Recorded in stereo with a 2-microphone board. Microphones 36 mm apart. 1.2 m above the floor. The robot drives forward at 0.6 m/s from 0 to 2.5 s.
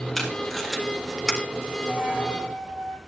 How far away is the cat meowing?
No cat meowing in this recording.